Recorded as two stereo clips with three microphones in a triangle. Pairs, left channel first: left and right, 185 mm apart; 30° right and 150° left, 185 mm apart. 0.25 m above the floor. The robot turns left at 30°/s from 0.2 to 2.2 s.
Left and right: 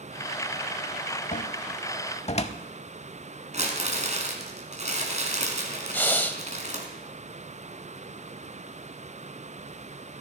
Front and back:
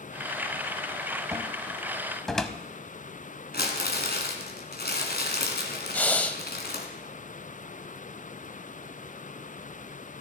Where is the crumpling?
45° right, 2.0 m.